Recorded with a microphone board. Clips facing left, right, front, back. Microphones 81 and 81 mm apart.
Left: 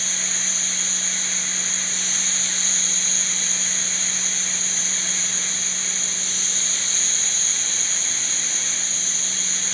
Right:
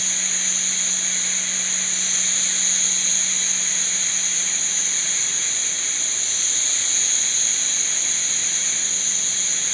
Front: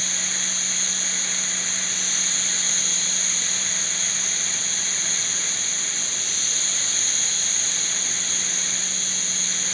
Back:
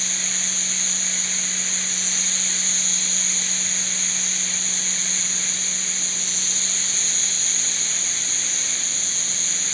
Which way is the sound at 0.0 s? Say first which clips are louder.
Left 1 dB, front 1 dB; 110° right.